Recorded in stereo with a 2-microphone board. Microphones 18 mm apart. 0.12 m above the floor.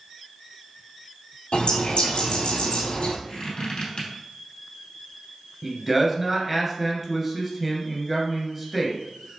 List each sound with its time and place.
1.5 s a bird: 65° left (ahead or behind), 1.3 m
3.3 s a squeak: 55° left (ahead or behind), 2 m
5.6 s a man speaking: 10° right (ahead or behind), 1.6 m